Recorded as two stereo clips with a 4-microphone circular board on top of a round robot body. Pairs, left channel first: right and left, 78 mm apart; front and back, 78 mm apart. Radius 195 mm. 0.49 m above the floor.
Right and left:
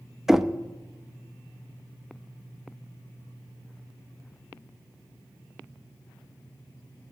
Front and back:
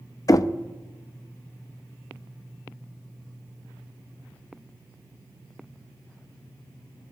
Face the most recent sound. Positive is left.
turn(degrees=5)